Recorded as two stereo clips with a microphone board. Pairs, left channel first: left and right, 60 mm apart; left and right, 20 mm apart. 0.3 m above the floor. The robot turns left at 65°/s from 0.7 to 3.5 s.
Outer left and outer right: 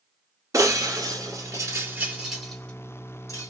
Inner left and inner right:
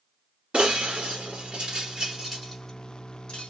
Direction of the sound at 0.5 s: 65° right (ahead or behind).